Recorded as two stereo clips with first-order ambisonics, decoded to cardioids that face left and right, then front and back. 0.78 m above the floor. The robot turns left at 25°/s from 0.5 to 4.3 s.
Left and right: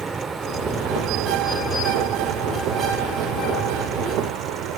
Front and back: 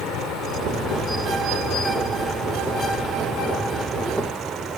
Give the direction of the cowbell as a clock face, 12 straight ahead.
I don't hear a cowbell.